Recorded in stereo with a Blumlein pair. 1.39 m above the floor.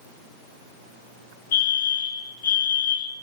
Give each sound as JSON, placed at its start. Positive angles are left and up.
{"t": 1.5, "sound": "a fire alarm", "azimuth_deg": 55, "distance_m": 4.5}